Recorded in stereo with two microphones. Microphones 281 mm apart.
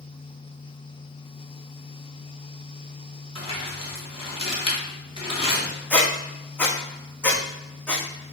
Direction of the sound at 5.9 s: 5° left (ahead or behind).